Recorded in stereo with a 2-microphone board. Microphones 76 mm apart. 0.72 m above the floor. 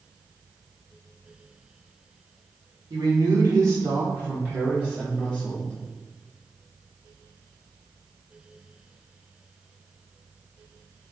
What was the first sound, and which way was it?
A man speaking, 60° right (ahead or behind).